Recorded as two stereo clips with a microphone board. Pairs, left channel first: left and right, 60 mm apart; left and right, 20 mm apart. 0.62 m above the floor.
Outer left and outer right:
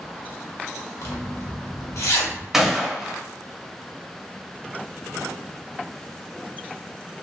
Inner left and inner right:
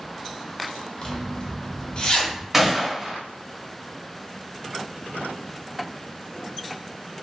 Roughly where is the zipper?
Left.